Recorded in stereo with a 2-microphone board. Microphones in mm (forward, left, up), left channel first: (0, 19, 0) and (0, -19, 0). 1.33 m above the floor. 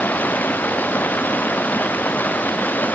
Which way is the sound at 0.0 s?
55° left (ahead or behind).